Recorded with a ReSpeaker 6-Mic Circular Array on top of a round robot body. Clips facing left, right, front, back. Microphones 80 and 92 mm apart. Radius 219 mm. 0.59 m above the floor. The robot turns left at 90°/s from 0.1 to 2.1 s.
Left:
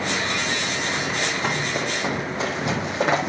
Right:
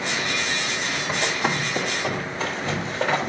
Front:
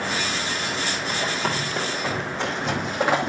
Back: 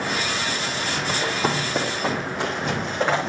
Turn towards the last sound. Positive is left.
turn(degrees=75)